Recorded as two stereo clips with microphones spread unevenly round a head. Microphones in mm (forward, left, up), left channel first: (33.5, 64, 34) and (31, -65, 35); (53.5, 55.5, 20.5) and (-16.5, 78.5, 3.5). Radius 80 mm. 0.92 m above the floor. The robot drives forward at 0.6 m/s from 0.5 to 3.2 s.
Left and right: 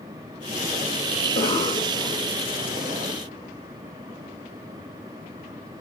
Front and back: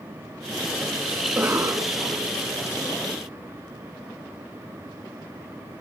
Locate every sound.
1.2 s a cough: 115° left, 1.0 m; by 2.4 s 145° left, 1.4 m